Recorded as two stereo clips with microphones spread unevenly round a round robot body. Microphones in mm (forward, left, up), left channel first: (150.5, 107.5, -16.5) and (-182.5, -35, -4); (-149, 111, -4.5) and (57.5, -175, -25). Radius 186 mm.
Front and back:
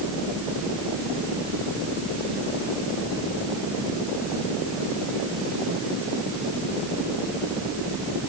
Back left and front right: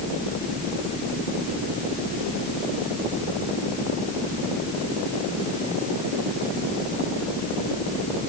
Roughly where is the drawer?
No drawer in this recording.